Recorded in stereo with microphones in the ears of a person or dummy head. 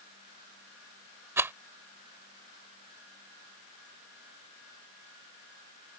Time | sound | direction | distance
1.4 | a rattle | 10° right (ahead or behind) | ?